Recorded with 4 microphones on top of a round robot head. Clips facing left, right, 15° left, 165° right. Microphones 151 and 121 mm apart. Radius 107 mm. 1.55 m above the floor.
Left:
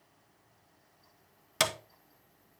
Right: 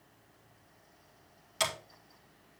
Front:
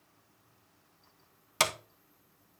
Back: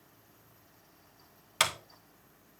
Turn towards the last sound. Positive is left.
turn(degrees=65)